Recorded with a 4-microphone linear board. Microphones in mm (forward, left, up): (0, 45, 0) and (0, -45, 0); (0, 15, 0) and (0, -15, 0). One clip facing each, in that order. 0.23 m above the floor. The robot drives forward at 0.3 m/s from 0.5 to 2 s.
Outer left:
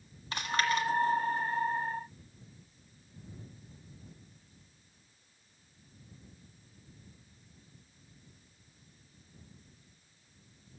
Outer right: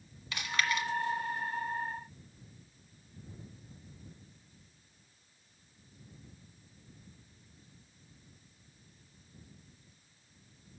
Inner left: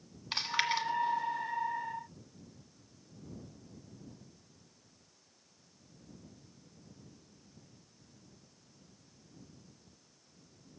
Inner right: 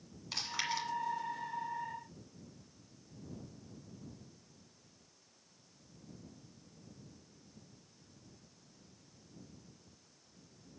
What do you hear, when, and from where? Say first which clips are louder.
0.3 s chewing: outer left 3 dB, inner left 5 dB; 40° left (ahead or behind), 1.6 m; by 0.9 s 35° left (ahead or behind), 1.6 m